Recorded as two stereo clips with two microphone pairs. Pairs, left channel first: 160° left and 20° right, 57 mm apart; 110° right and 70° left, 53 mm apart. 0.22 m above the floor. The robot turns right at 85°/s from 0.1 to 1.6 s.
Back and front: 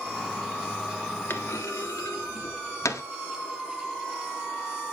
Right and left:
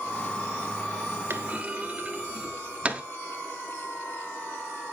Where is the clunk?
115° left, 0.9 m; by 3.0 s 140° left, 0.9 m.